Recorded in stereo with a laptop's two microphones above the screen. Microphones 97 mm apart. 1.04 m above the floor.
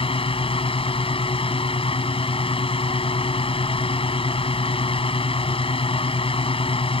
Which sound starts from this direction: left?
A fan, at 0.0 s.